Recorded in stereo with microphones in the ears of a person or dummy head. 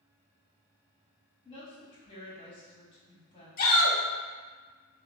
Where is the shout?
50° left (ahead or behind), 1.2 m.